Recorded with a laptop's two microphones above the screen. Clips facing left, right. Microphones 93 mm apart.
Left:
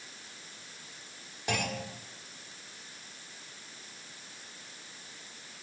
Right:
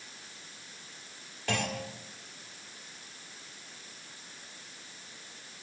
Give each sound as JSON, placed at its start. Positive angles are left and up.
{"t": 1.5, "sound": "a clunk", "side_deg": 20, "distance_m": 1.4}